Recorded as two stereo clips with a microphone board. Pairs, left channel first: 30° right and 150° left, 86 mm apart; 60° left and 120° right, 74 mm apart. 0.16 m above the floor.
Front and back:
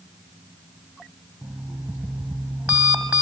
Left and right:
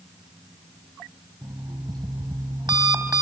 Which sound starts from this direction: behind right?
An alarm clock, at 1.4 s.